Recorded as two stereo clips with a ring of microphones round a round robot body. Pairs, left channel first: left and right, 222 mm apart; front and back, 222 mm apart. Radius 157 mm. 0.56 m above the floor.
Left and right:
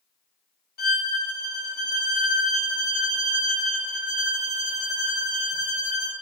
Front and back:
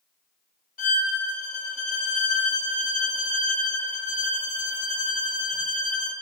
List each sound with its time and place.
0.8 s a violin: 50° left, 0.6 m